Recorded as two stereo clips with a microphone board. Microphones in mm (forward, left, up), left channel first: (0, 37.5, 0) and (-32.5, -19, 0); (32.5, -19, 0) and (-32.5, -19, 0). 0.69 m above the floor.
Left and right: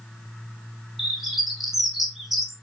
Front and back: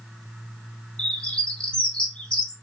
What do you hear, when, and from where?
1.0 s a bird: 45° right, 0.7 m